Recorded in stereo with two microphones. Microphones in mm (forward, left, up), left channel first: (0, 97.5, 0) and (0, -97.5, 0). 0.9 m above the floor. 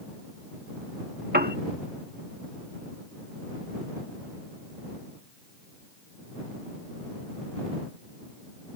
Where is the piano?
50° right (ahead or behind).